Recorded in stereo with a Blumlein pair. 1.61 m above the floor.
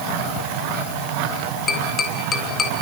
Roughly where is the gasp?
I don't hear a gasp.